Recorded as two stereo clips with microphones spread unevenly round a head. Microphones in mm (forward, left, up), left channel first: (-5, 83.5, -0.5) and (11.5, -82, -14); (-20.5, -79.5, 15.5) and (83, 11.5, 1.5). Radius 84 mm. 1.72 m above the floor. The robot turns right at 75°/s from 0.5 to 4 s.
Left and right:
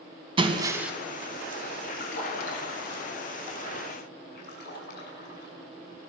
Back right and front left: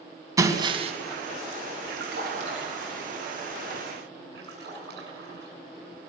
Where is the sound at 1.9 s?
50° left, 5.5 m; by 3.1 s 140° left, 5.5 m.